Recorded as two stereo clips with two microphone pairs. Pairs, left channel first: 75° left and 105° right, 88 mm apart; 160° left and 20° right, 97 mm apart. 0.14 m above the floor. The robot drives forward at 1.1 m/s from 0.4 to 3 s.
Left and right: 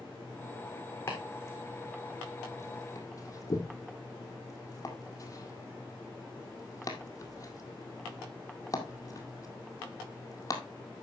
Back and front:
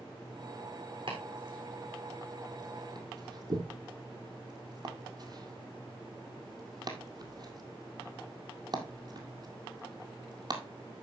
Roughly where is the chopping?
Ahead.